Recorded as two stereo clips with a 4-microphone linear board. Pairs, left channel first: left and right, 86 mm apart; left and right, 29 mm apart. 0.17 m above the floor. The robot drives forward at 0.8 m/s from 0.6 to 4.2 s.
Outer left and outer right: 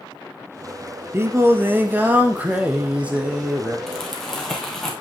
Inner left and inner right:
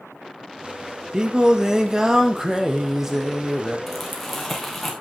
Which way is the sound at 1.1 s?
30° right (ahead or behind).